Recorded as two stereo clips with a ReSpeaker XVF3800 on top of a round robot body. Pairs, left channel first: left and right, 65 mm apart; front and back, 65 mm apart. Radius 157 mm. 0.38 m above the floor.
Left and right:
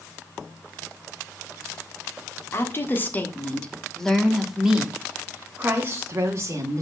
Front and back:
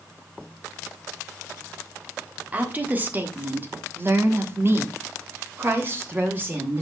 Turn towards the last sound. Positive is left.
turn(degrees=-125)